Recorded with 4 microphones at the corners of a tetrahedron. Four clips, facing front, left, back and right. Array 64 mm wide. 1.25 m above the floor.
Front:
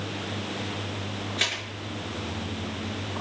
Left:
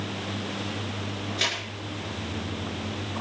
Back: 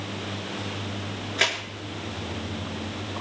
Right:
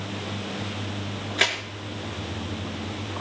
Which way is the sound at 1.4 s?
125° right.